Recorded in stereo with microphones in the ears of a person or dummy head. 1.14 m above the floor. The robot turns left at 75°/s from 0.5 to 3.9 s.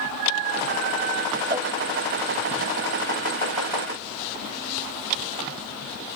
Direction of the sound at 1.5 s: 25° right (ahead or behind).